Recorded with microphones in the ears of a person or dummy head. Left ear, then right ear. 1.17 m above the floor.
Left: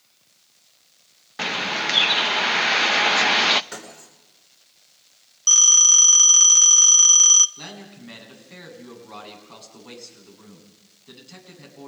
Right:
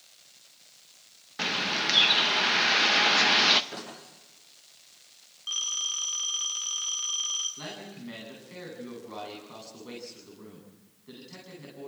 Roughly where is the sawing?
No sawing in this recording.